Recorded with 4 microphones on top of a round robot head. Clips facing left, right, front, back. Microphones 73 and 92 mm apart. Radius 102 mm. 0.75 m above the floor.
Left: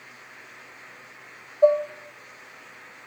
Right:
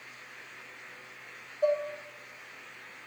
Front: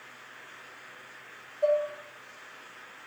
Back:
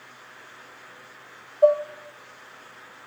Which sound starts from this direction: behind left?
Dishes clattering, at 1.6 s.